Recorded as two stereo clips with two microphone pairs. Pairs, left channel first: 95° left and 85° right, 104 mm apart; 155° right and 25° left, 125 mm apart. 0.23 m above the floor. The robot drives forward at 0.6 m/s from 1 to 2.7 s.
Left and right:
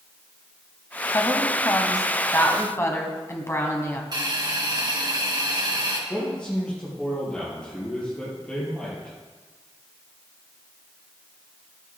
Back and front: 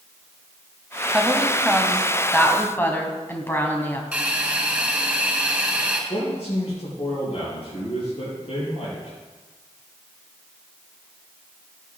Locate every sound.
1.1 s a woman speaking: 95° left, 1.5 m; by 4.0 s 145° left, 1.8 m
4.1 s a hiss: 55° right, 3 m
6.1 s a man speaking: 175° left, 5 m